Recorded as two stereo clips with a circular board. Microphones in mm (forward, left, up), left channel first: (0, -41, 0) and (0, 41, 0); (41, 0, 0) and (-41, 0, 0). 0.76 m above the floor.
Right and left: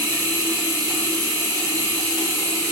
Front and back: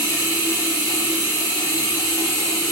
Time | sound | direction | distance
0.0 | running water | 115° left | 2 m